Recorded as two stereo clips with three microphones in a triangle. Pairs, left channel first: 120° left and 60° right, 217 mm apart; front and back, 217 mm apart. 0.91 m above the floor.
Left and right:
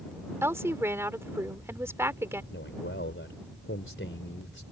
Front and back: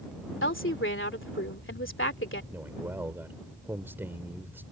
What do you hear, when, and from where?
0.4 s a woman speaking: 20° left
2.5 s a man speaking: 100° left